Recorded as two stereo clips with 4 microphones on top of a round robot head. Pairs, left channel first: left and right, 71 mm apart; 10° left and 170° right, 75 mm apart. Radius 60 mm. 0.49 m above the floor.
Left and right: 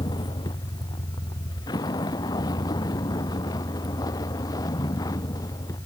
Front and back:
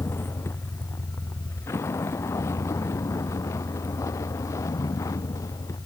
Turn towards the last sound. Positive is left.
turn(degrees=55)